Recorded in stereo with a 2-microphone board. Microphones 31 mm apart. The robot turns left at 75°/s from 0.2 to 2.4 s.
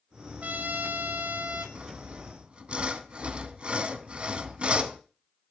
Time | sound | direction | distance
0.4 | a trumpet | 60° right | 1.2 m
1.8 | sawing | 75° right | 0.8 m